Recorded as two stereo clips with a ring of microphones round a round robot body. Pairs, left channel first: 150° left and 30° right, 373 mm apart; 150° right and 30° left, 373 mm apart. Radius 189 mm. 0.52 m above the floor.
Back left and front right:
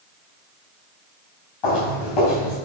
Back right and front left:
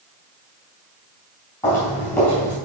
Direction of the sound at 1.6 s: 125° left.